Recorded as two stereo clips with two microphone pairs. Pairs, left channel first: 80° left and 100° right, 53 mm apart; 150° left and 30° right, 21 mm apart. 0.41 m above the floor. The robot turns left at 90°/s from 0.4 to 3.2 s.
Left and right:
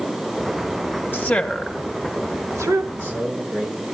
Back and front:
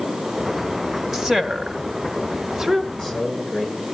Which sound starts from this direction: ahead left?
A woman speaking, at 1.1 s.